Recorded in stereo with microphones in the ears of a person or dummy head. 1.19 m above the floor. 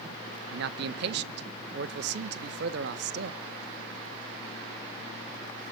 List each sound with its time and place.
0.5 s a man speaking: 60° right (ahead or behind), 1.3 m